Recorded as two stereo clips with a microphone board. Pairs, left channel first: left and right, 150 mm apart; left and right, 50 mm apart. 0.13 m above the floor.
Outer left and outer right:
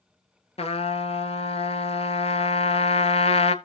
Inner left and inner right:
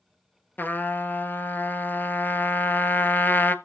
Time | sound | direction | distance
0.6 | a trumpet | 45° left (ahead or behind) | 0.6 m